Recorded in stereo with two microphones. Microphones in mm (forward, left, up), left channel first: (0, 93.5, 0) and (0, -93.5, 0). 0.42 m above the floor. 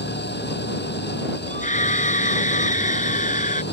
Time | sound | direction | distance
0.0 | an engine running | 65° left (ahead or behind) | ?
1.5 | a scream | 40° left (ahead or behind) | ?